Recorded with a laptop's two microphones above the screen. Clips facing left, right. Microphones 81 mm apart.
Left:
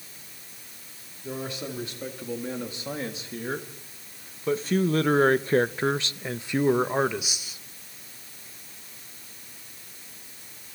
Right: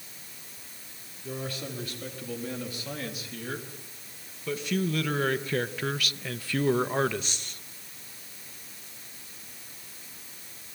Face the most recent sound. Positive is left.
turn(degrees=5)  # may be behind; listen again after turning